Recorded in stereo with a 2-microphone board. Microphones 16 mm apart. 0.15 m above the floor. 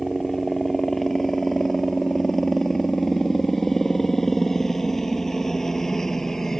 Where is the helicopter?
15° left (ahead or behind); by 6.6 s 30° left (ahead or behind).